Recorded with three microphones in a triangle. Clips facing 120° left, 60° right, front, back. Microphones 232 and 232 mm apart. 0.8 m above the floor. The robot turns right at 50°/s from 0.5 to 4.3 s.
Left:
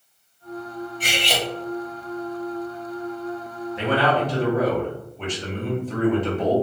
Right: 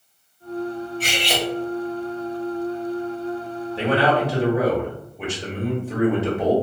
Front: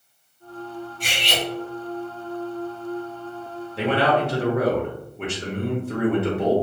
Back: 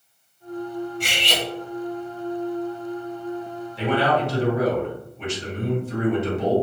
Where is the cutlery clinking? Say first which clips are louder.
Even, back 1 dB; 165° right, 1.0 m; by 1.4 s 140° right, 1.0 m.